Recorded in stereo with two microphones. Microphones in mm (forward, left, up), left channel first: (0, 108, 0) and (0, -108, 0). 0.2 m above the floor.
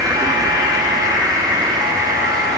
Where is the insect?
15° right (ahead or behind), 6 m.